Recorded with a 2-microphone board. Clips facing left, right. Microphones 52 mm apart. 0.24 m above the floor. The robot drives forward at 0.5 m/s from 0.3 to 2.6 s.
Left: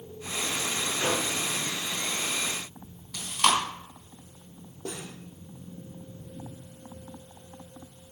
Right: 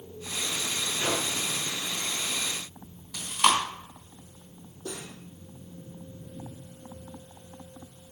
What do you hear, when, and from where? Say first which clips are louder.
1.0 s a microwave: left 1 dB; 55° left (ahead or behind), 3 m
3.1 s chewing: right 1 dB; centre (ahead or behind), 2.5 m
4.8 s cutlery clinking: left 1 dB; 65° left (ahead or behind), 3.5 m